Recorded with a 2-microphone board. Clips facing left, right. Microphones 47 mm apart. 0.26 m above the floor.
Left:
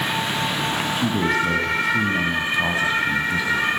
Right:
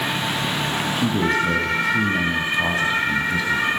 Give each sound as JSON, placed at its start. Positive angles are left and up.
{"t": 0.9, "sound": "a man speaking", "side_deg": 5, "distance_m": 2.5}